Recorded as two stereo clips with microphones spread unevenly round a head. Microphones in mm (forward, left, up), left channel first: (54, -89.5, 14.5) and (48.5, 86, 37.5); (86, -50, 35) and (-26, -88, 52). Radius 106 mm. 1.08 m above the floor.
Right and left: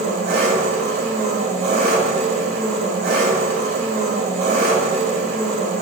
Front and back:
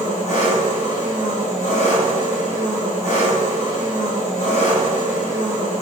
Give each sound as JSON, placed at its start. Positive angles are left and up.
{"t": 0.0, "sound": "an engine running", "azimuth_deg": 65, "distance_m": 1.7}